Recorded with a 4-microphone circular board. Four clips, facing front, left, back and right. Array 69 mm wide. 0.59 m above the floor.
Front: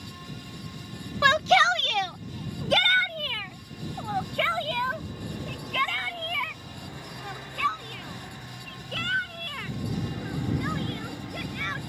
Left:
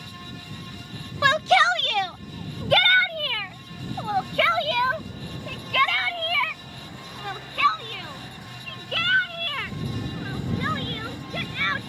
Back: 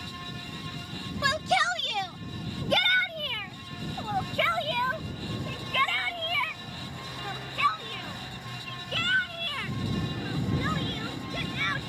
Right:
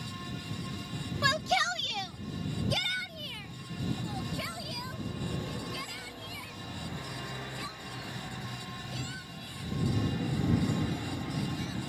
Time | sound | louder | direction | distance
1.2 | a shout | left 11 dB, front 6 dB | 50° left | ?